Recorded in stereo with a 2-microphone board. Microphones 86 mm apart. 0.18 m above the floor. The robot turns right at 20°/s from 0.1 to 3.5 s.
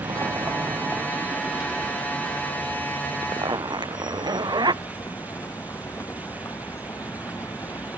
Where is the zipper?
55° right (ahead or behind); by 4.8 s 50° right (ahead or behind).